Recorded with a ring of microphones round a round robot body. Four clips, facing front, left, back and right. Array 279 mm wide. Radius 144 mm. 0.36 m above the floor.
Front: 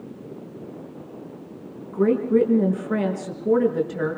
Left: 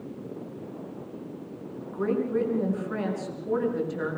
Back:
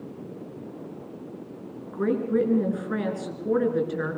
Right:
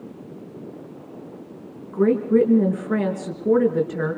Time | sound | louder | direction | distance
1.9 | a woman speaking | right 9 dB, front 5 dB | 100° right | 5 m